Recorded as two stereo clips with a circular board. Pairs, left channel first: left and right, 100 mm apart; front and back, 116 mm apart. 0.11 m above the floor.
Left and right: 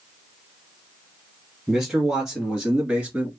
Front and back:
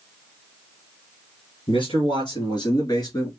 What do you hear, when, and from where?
1.7 s a man speaking: 5° right, 2 m; by 3.3 s 25° right, 1.7 m